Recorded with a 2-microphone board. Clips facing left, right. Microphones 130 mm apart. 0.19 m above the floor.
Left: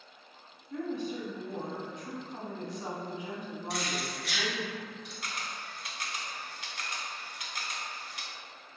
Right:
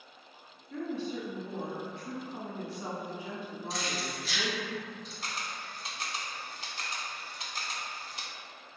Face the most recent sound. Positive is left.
turn(degrees=-30)  # may be behind; listen again after turning